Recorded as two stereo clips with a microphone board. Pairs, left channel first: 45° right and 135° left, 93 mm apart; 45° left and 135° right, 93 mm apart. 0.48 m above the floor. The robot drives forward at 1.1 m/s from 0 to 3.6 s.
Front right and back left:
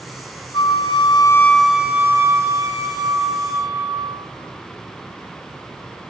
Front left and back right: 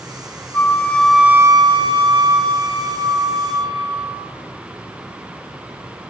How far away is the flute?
About 1.0 m.